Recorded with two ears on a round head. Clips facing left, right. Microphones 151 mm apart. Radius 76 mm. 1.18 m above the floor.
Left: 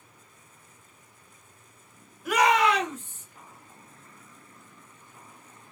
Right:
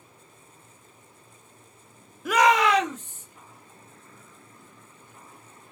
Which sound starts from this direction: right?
A shout, at 2.2 s.